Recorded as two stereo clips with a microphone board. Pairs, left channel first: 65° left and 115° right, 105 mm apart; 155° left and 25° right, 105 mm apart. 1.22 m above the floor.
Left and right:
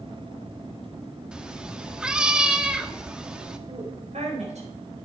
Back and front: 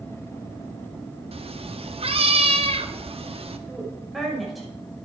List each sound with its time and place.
1.3 s a cat meowing: 30° right, 1.0 m
3.7 s a woman speaking: 110° right, 5 m